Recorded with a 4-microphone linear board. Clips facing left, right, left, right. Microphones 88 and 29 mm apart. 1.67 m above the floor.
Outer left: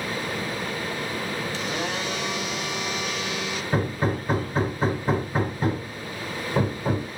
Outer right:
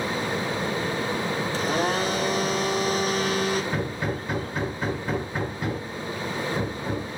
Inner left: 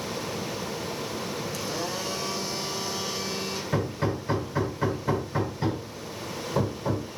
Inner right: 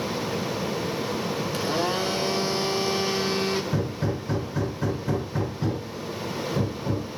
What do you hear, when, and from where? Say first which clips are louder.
1.5 s a blender: outer right 5 dB, inner right 8 dB; 40° right (ahead or behind), 1.4 m
3.7 s hammering: outer left 3 dB, even; 35° left (ahead or behind), 3 m